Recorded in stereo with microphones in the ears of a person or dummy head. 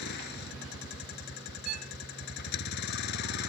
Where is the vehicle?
55° left (ahead or behind).